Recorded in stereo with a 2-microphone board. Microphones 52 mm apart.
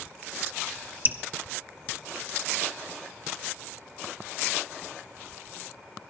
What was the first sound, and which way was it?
Dripping, 35° right (ahead or behind).